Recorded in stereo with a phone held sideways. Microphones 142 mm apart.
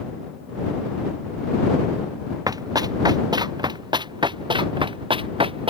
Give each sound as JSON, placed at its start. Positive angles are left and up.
{"t": 2.5, "sound": "running footsteps", "side_deg": -25}